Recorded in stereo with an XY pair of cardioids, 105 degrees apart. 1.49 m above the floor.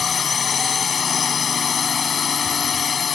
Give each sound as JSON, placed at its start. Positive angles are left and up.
{"t": 0.0, "sound": "a drone", "azimuth_deg": 50}